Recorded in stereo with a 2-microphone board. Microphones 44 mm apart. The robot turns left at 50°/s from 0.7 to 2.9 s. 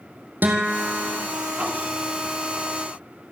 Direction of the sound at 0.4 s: 45° right (ahead or behind).